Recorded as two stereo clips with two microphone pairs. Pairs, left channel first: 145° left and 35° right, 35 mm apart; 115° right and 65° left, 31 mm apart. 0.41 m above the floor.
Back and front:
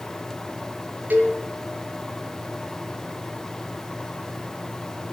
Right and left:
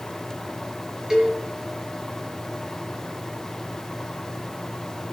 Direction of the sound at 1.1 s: 10° right.